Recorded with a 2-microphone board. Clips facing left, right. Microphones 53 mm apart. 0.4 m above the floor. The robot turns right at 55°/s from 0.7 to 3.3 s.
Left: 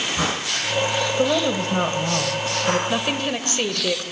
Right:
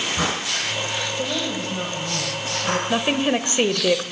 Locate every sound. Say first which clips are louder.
1.2 s a woman speaking: left 6 dB; 50° left, 2 m; by 2.8 s 140° left, 2 m
2.9 s a woman speaking: right 3 dB; 10° right (ahead or behind), 1.3 m; by 4.0 s 25° right (ahead or behind), 1.3 m